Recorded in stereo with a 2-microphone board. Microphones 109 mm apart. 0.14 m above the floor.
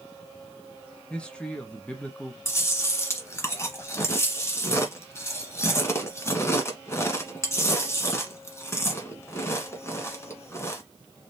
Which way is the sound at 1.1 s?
10° left (ahead or behind).